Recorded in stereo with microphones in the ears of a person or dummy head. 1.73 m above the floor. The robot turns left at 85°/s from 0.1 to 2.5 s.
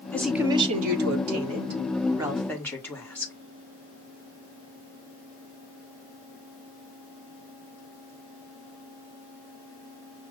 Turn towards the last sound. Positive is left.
turn(degrees=170)